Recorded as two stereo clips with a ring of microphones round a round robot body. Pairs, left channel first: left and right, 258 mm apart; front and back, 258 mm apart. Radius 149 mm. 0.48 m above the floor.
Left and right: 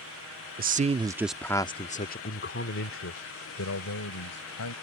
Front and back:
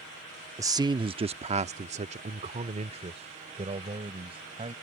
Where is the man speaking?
110° right; by 4.7 s 110° left.